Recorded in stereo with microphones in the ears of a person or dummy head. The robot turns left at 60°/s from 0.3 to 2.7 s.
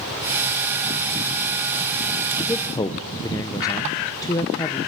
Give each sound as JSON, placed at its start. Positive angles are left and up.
{"t": 2.4, "sound": "a man speaking", "side_deg": 0, "distance_m": 0.7}